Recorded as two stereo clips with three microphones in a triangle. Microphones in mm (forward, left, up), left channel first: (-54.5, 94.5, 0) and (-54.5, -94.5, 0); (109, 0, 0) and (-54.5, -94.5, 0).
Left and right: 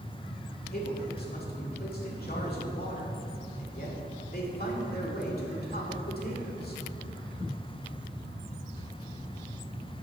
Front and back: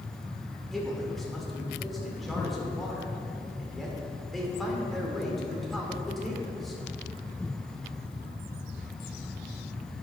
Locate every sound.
0.7 s a man speaking: 120° left, 1.8 m